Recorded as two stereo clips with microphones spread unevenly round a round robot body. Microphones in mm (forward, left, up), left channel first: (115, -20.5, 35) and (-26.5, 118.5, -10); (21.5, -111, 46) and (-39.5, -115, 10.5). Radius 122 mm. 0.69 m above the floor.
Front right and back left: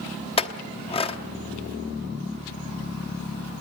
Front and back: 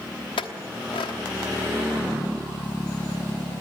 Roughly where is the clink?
Ahead left.